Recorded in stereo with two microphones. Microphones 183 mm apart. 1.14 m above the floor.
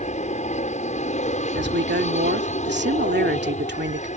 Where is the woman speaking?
85° right.